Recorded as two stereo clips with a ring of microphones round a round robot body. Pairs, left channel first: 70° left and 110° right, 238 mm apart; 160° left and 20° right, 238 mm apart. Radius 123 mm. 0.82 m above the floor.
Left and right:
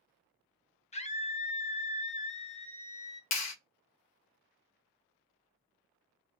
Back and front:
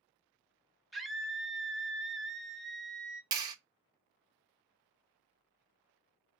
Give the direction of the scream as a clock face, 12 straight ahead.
10 o'clock.